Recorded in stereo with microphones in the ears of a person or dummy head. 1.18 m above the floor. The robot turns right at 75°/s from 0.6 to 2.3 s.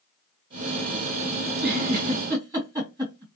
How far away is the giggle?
About 2 m.